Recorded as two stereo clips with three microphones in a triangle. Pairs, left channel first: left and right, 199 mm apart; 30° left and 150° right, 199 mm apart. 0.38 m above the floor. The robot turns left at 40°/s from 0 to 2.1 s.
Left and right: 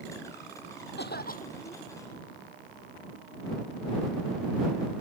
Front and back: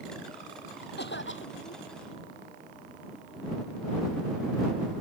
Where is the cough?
60° left; by 1.9 s 25° left.